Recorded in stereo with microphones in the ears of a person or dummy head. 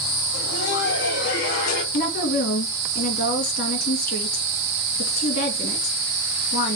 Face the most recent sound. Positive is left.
turn(degrees=55)  # may be behind; listen again after turning